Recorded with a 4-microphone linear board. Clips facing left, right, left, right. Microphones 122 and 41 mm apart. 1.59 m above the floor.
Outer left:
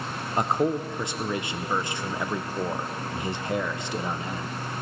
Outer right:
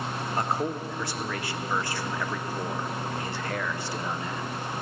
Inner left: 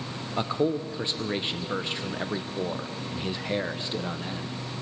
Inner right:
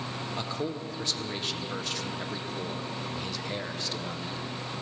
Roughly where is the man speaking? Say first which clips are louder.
Outer left 5 dB, inner left 10 dB; left.